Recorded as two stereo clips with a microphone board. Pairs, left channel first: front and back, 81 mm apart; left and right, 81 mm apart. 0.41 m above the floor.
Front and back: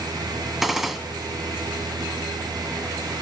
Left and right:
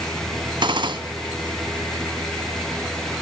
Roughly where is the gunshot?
Right.